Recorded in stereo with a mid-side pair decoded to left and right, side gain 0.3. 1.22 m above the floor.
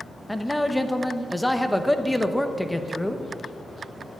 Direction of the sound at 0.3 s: 10° left.